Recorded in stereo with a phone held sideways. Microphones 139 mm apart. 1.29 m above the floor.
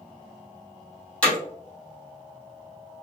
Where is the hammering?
10° left (ahead or behind), 2.5 m.